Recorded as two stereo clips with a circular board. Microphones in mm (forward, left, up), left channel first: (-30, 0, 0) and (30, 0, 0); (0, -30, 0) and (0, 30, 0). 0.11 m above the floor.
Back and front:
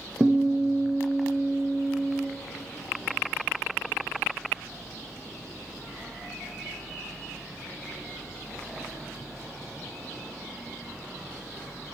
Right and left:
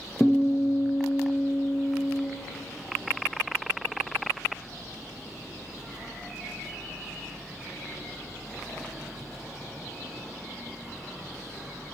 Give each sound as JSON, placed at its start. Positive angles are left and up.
{"t": 0.2, "sound": "a guitar", "azimuth_deg": -20, "distance_m": 0.9}